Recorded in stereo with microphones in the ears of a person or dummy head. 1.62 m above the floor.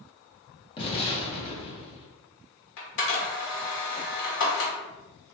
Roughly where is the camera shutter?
Left.